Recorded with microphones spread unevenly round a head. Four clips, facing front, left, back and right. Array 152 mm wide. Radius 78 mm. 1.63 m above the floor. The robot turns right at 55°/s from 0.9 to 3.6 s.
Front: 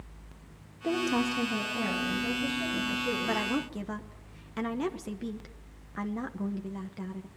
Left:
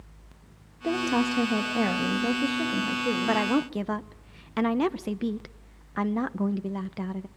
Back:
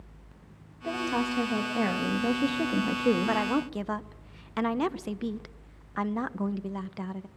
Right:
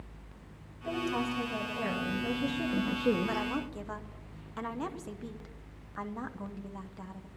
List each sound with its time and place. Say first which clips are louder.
0.8 s a woman speaking: left 7 dB, front 1 dB; 65° left, 2.5 m; by 3.5 s 155° right, 2.5 m
3.3 s a woman speaking: left 9 dB, back 4 dB; 80° left, 1.1 m; by 7.3 s 100° left, 1.1 m